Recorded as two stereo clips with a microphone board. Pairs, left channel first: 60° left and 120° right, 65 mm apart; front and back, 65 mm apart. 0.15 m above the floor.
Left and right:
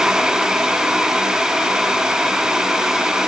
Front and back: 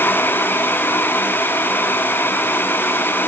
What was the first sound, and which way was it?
Only background noise.